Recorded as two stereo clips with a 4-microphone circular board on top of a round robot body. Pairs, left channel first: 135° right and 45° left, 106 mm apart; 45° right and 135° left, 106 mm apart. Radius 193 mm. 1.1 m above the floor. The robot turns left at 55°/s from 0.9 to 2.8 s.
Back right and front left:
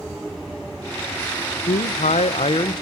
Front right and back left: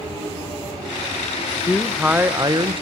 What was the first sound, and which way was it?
A man speaking, 125° right.